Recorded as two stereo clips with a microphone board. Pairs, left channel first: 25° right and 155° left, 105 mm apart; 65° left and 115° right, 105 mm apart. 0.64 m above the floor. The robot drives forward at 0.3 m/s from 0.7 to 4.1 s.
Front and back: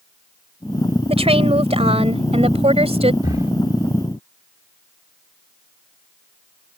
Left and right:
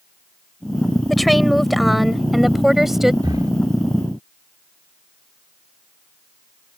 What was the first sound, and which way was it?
A woman speaking, 155° left.